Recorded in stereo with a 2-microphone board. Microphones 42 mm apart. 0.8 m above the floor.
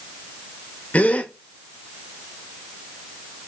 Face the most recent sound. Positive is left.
turn(degrees=35)  # may be behind; listen again after turning